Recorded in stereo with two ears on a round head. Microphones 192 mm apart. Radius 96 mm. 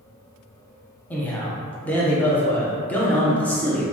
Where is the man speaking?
5° left (ahead or behind), 0.7 m.